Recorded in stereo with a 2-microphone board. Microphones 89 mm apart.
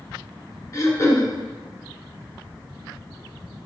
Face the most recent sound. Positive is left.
turn(degrees=40)  # may be behind; listen again after turning